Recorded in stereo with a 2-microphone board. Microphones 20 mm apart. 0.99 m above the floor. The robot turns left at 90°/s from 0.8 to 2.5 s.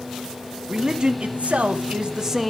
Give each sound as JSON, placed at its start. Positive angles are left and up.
{"t": 0.7, "sound": "a man speaking", "azimuth_deg": -25, "distance_m": 1.8}